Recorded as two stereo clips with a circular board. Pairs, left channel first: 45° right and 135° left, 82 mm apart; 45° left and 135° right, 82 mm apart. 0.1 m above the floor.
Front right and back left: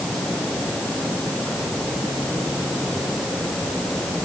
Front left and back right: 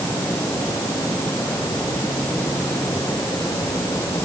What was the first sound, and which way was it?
Only background noise.